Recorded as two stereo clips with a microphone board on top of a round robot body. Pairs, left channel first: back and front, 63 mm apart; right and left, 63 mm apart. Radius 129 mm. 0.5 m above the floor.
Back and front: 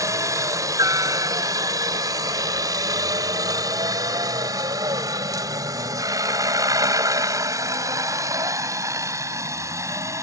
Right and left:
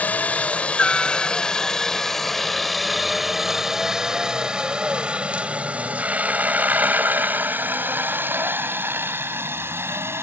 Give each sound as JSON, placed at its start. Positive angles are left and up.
{"t": 0.0, "sound": "a helicopter", "azimuth_deg": -25}